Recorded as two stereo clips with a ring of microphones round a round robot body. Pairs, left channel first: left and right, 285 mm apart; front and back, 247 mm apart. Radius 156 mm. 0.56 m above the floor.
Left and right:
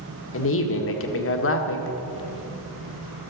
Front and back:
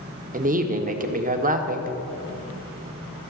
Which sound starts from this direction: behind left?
A woman speaking, at 0.3 s.